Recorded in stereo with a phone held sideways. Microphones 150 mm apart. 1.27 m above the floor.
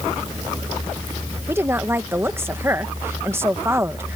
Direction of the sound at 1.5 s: 15° right (ahead or behind).